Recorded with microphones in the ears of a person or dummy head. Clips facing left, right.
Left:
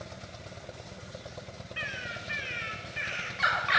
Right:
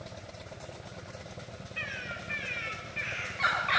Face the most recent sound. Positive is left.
turn(degrees=10)  # may be behind; listen again after turning